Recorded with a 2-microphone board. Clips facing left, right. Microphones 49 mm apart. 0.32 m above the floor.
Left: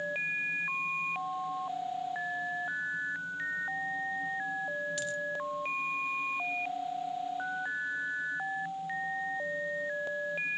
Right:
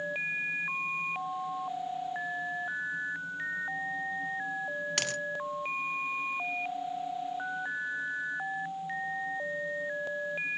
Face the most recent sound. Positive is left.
turn(degrees=-70)  # may be behind; listen again after turning